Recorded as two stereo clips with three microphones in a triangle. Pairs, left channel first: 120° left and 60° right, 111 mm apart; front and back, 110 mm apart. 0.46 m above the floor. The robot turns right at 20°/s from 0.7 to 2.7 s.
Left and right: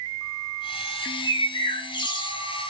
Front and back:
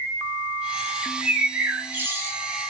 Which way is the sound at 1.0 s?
100° left.